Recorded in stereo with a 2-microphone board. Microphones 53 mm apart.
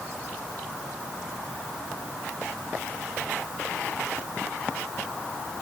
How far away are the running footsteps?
No running footsteps in this recording.